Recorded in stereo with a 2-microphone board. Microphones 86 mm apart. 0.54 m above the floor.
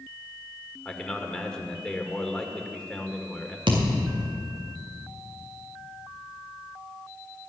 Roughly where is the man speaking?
Centre.